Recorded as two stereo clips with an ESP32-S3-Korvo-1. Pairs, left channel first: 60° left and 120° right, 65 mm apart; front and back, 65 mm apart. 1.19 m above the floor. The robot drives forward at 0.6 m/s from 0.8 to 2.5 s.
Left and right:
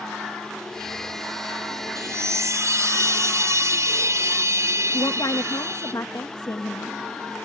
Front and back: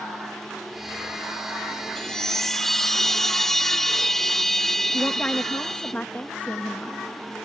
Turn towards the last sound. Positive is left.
turn(degrees=65)